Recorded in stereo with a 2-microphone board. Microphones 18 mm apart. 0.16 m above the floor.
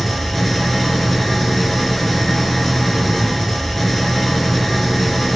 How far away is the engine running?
About 2 m.